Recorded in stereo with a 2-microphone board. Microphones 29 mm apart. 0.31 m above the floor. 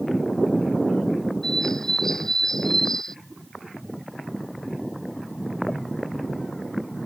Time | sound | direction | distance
1.4 | a bird | 20° left (ahead or behind) | ?